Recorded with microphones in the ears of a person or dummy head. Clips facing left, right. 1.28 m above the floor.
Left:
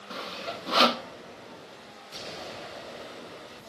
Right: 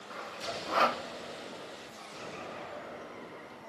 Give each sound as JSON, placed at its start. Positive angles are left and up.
{"t": 0.1, "sound": "sawing", "side_deg": 45, "distance_m": 0.8}